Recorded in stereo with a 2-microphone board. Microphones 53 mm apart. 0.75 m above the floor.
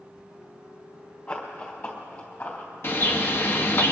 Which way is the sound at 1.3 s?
30° left (ahead or behind).